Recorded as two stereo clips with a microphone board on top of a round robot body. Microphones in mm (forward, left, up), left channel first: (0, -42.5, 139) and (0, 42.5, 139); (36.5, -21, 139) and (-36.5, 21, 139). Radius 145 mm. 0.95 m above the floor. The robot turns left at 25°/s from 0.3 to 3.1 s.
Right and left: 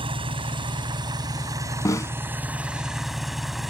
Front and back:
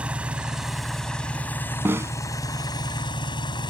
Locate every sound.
0.0 s an engine running: 75° left; by 3.7 s 5° left
1.9 s a snare drum: 145° right; by 2.1 s 150° right